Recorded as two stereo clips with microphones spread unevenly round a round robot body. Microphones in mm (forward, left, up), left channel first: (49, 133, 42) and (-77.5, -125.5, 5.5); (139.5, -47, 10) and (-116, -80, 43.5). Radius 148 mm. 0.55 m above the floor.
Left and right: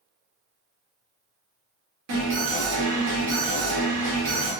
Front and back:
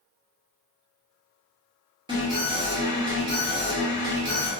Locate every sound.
2.1 s an alarm: 95° right, 1.1 m